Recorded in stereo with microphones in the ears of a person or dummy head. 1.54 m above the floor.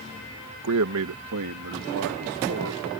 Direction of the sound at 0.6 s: 85° right.